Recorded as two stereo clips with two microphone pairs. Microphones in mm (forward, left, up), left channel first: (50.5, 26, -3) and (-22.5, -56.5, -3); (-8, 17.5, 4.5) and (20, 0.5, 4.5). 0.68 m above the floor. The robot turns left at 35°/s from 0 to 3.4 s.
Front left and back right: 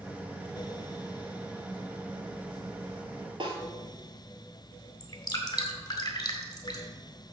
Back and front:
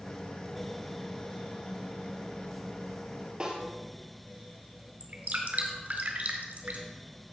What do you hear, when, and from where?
3.4 s a snare drum: 90° right, 2 m
5.0 s dripping: 5° right, 1.9 m